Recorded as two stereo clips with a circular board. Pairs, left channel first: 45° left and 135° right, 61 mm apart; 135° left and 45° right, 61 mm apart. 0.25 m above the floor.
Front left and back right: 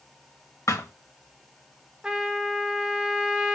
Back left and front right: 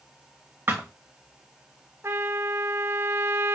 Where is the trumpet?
65° right, 1.1 m.